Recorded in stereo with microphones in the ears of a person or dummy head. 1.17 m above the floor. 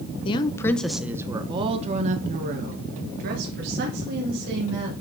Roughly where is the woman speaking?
Left.